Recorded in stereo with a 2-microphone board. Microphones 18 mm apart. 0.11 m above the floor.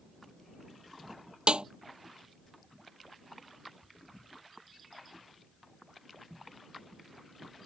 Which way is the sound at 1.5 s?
70° right (ahead or behind).